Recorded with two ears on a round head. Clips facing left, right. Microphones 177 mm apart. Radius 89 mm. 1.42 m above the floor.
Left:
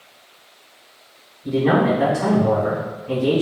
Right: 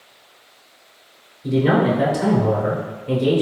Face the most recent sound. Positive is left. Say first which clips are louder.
# even
turn(degrees=-50)  # may be behind; listen again after turning